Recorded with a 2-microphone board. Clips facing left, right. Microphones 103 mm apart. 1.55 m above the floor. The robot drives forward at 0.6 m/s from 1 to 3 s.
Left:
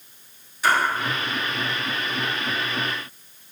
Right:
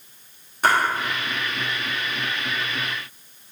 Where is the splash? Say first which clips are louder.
Right 1 dB; 50° right (ahead or behind), 1.4 m.